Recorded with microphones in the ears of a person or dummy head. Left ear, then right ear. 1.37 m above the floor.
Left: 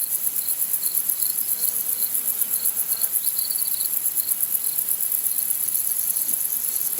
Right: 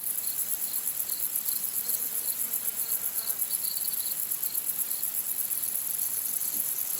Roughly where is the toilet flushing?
No toilet flushing in this recording.